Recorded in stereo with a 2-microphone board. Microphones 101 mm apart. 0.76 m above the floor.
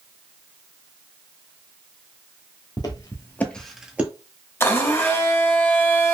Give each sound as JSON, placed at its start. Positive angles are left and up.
{"t": 2.8, "sound": "footsteps", "side_deg": 40, "distance_m": 1.0}
{"t": 4.6, "sound": "a blender", "side_deg": 25, "distance_m": 0.8}